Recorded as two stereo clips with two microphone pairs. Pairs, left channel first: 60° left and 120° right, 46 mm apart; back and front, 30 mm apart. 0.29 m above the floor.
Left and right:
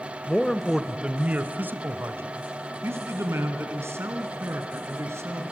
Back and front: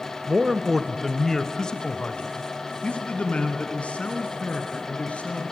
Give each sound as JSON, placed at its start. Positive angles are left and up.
{"t": 0.3, "sound": "a man speaking", "azimuth_deg": 5, "distance_m": 1.1}